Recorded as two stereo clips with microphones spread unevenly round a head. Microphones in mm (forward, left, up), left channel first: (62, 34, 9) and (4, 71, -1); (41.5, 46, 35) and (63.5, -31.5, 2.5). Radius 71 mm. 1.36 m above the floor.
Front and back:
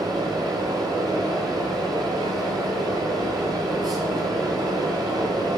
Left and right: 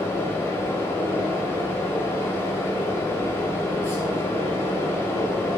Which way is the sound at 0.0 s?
135° left.